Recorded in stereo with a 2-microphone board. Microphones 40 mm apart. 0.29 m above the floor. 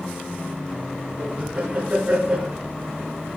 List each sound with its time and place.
1.2 s laughter: 50° right (ahead or behind), 2.5 m